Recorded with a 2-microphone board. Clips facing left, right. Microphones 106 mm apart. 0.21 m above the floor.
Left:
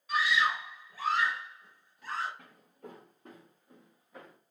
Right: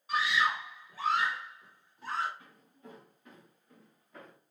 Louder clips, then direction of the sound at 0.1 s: Left 1 dB; 30° right (ahead or behind).